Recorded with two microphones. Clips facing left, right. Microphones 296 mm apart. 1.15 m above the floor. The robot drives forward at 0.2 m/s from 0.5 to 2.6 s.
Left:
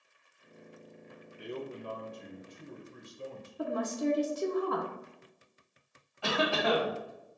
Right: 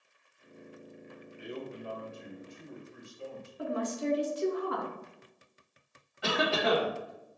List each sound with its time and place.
1.4 s a man speaking: 35° left (ahead or behind), 1.2 m; by 3.5 s 40° left (ahead or behind), 1.0 m
3.6 s a woman speaking: 50° left (ahead or behind), 0.9 m
6.2 s a cough: 20° right (ahead or behind), 1.8 m